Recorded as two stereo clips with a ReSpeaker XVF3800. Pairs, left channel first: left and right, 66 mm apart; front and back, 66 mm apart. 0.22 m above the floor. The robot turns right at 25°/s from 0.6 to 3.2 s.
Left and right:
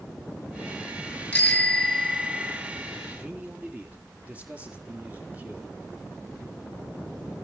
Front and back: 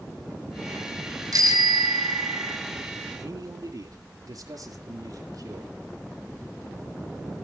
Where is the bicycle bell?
160° left, 3 m; by 2.6 s 165° right, 3 m.